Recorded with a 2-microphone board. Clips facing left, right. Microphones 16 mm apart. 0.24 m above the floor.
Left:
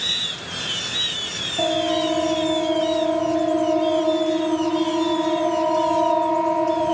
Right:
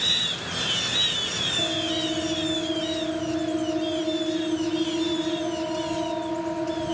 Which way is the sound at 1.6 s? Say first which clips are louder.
Left 5 dB; 75° left (ahead or behind).